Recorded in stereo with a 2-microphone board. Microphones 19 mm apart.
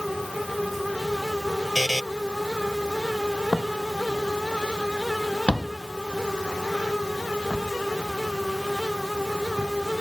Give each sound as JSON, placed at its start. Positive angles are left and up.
{"t": 1.8, "sound": "a buzzer", "side_deg": 20}
{"t": 3.5, "sound": "footsteps", "side_deg": 20}